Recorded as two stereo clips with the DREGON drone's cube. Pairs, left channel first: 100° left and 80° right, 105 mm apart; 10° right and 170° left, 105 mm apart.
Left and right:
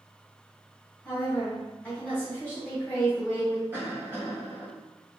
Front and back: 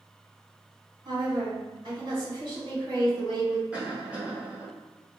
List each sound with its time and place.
1.1 s a woman speaking: 165° left, 2.0 m
3.7 s a cough: 120° right, 1.7 m